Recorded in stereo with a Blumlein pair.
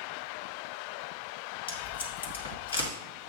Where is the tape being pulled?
70° left, 2 m.